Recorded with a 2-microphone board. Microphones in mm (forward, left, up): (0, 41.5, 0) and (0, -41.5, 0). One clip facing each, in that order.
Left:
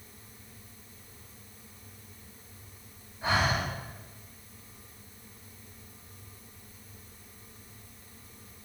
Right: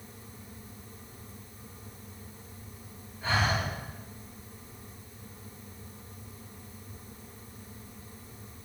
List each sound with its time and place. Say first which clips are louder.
3.2 s breathing: left 1 dB; 15° left (ahead or behind), 3 m